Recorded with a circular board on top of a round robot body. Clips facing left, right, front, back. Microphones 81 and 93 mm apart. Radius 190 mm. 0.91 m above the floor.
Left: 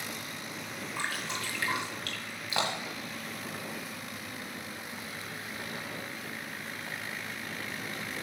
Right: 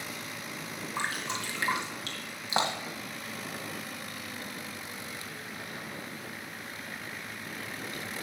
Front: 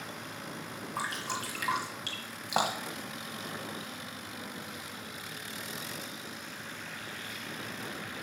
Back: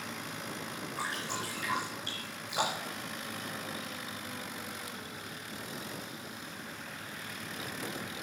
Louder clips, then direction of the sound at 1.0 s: Right 2 dB, front 2 dB; 25° right.